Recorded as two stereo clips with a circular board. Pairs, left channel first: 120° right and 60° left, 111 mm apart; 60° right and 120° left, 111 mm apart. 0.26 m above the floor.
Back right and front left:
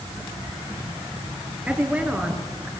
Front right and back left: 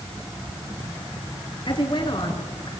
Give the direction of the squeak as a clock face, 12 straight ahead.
No squeak in this recording.